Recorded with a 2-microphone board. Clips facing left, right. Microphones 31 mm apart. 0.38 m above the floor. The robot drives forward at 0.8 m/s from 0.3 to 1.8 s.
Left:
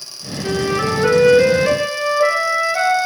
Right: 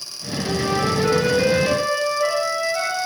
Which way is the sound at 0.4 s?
30° left (ahead or behind).